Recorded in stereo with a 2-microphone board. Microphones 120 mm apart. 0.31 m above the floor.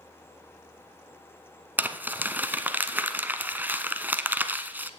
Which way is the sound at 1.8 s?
15° right (ahead or behind).